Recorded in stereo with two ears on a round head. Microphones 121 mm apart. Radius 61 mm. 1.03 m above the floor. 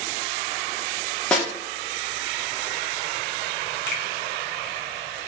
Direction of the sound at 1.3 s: 5° left (ahead or behind).